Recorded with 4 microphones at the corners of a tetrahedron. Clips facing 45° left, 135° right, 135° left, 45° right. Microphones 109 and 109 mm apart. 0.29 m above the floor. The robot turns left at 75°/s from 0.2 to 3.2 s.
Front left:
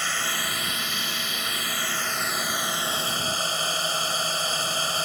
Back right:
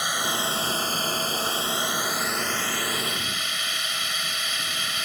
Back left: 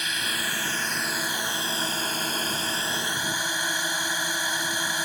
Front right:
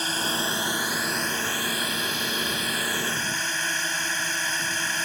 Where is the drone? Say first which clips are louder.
Back right 3 dB, front right 4 dB; 70° right; by 5.1 s 65° left.